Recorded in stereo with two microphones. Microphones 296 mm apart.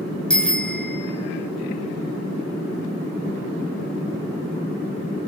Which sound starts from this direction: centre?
A bicycle bell, at 0.3 s.